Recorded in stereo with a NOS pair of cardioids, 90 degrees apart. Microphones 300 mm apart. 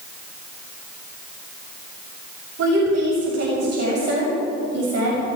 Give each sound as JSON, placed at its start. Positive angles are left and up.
{"t": 2.6, "sound": "a woman speaking", "azimuth_deg": -60, "distance_m": 7.0}